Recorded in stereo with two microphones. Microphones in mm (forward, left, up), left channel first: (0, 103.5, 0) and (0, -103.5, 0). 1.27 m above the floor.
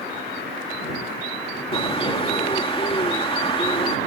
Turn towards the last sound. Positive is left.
turn(degrees=25)  # may be behind; listen again after turning